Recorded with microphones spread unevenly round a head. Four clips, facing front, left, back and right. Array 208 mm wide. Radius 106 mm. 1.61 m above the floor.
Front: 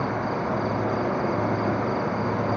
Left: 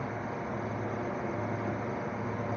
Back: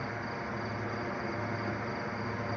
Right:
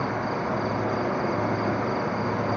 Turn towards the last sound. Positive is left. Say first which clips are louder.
# right 9 dB, front 11 dB
turn(degrees=-40)